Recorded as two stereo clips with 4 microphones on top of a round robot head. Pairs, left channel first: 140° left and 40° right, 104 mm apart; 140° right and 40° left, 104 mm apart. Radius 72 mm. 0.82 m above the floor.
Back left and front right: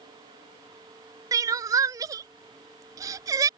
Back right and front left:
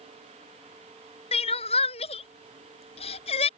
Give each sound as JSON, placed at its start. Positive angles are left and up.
{"t": 1.3, "sound": "crying", "azimuth_deg": -100}